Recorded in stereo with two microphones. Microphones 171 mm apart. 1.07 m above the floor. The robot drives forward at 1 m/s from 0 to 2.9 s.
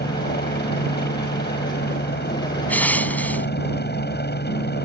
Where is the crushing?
10° left (ahead or behind).